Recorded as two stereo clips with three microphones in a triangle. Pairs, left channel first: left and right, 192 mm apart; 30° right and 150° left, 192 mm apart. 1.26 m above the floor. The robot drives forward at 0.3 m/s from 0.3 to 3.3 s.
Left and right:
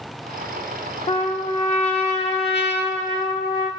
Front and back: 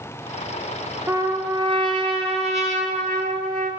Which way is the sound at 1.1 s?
85° left.